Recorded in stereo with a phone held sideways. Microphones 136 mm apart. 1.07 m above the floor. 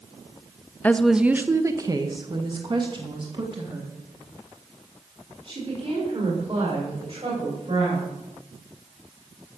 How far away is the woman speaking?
About 0.6 m.